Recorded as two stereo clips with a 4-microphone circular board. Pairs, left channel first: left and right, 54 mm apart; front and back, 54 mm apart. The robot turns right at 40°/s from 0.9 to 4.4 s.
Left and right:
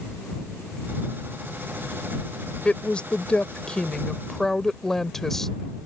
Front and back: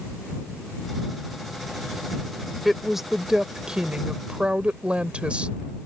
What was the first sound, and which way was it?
A woman speaking, 90° left.